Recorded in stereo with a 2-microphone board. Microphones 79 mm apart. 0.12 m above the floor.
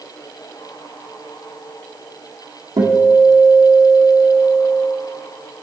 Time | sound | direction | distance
2.8 | a guitar | 60° right (ahead or behind) | 3 m